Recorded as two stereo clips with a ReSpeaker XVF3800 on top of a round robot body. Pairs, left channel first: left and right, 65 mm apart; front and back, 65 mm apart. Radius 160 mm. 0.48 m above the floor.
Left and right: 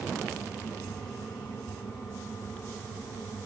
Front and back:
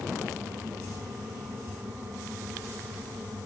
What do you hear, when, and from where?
Only background noise.